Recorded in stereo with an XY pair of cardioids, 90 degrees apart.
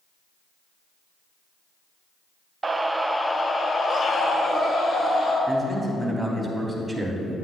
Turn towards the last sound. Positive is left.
turn(degrees=-10)